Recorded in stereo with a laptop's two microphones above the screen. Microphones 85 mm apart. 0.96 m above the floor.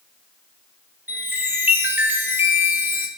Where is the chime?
20° right (ahead or behind), 0.5 m.